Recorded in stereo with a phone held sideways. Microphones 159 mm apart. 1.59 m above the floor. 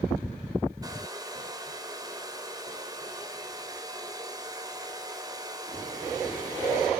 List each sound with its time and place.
0.8 s a hair dryer: 25° right (ahead or behind), 2 m